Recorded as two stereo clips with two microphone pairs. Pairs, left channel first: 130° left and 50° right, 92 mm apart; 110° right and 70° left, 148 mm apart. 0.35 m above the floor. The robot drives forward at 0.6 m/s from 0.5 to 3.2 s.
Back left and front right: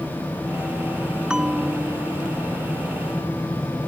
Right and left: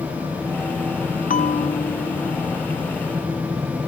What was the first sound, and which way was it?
A bell, 130° right.